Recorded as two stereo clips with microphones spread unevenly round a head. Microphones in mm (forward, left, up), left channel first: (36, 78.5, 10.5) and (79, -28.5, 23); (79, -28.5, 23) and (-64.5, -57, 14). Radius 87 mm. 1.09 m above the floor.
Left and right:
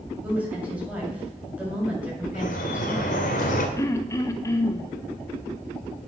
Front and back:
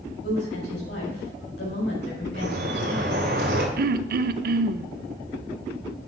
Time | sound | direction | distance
0.2 | a woman speaking | 10° left | 7 m
2.3 | dripping | 145° left | 2 m
3.8 | throat clearing | straight behind | 0.6 m